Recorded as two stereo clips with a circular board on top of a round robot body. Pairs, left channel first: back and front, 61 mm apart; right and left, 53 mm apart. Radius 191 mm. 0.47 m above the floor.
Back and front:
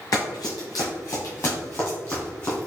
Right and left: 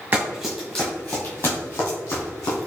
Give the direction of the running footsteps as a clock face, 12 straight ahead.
7 o'clock.